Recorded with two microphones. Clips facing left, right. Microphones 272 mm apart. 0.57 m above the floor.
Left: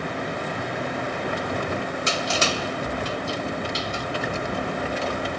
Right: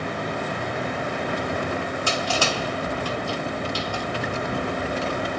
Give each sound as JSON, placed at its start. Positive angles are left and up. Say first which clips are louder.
{"t": 2.1, "sound": "crushing", "louder": "right 1 dB", "side_deg": 25, "distance_m": 0.7}